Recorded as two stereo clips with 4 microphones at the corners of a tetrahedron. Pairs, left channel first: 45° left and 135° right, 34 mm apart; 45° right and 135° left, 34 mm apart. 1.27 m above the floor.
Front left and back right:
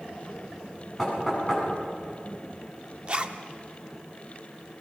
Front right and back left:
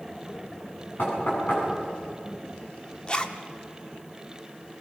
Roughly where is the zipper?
Right.